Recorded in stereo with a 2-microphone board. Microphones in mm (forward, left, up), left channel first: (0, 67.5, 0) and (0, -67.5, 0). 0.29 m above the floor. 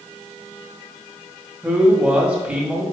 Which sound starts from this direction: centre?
A man speaking, at 1.6 s.